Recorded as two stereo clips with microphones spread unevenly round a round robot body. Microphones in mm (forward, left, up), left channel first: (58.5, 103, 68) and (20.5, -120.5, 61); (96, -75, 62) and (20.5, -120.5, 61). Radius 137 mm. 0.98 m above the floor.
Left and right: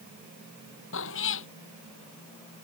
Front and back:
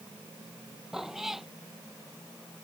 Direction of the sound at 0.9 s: 125° left.